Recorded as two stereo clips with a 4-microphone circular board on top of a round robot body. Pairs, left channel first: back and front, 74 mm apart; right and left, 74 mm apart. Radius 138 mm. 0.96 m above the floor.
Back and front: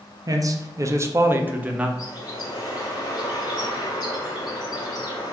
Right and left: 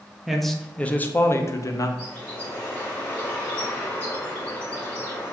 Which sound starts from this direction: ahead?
A man speaking, at 0.3 s.